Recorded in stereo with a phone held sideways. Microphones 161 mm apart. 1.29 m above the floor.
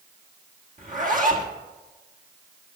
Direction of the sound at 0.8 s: 55° right (ahead or behind).